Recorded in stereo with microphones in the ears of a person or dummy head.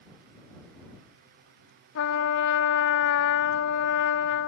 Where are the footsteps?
No footsteps in this recording.